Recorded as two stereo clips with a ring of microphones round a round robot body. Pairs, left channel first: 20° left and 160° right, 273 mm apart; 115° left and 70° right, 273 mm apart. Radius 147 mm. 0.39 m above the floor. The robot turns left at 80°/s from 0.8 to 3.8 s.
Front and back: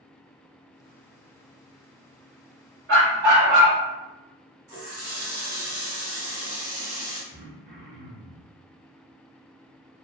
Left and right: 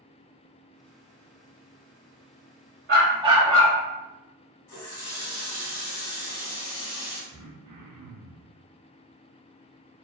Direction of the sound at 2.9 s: 110° right.